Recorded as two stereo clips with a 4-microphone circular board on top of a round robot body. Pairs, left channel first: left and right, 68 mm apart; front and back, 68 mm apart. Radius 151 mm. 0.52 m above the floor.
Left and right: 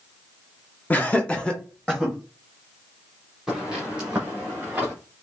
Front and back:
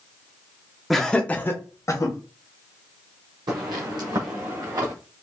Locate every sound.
0.9 s laughter: 95° left, 1.1 m; by 2.1 s 5° left, 1.5 m
3.5 s footsteps: 175° right, 0.8 m; by 4.9 s 160° right, 1.8 m